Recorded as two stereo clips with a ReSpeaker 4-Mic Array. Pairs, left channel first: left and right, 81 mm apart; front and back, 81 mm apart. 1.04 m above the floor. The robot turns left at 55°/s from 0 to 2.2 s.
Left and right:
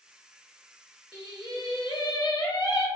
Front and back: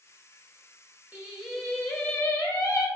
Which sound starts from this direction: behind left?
Singing, at 1.1 s.